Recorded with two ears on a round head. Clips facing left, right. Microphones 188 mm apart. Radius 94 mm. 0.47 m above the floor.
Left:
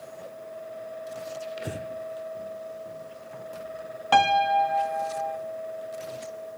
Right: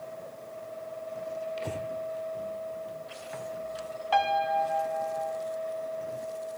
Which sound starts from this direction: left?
A piano, at 4.1 s.